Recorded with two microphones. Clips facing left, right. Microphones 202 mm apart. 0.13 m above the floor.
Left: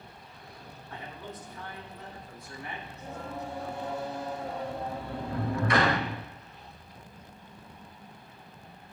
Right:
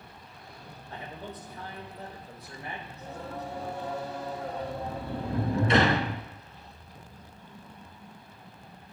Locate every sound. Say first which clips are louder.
0.9 s a man speaking: right 2 dB; 30° right (ahead or behind), 4 m
2.9 s singing: even; 35° right (ahead or behind), 2 m
4.6 s a sliding door: even; 25° right (ahead or behind), 1.1 m